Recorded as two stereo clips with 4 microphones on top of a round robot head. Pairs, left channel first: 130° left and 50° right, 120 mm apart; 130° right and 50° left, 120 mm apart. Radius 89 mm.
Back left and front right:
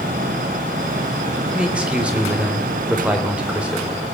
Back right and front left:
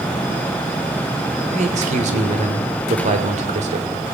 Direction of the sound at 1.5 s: 30° left.